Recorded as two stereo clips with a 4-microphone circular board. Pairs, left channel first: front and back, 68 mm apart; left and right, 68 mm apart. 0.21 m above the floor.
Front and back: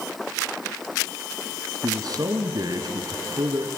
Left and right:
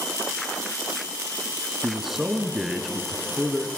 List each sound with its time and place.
1.8 s a man speaking: 175° right, 2 m